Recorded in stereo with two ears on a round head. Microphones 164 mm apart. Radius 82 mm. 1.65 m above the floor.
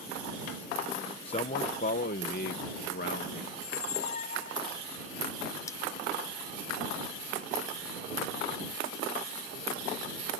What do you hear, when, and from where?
1.2 s a man speaking: 30° left (ahead or behind); by 3.4 s 60° left (ahead or behind)
3.5 s a squeak: 40° left (ahead or behind)
5.7 s cutlery clinking: 15° left (ahead or behind)